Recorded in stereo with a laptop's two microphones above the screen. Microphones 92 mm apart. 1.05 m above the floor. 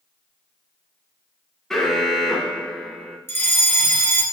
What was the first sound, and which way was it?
An alarm, 5° left (ahead or behind).